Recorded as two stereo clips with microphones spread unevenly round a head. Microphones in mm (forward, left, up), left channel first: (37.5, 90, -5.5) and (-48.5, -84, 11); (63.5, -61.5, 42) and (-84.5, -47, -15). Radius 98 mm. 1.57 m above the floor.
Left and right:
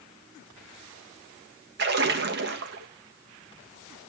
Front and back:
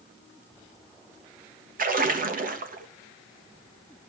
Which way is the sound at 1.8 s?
150° right.